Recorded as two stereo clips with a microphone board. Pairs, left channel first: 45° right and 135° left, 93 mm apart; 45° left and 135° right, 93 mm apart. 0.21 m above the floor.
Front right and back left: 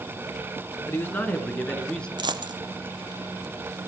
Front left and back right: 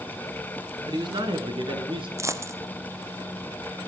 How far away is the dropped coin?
About 1.1 m.